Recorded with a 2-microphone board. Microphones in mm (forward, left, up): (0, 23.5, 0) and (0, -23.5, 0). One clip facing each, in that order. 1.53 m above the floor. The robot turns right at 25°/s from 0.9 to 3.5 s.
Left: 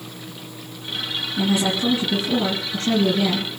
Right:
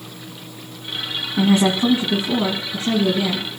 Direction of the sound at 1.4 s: 50° right.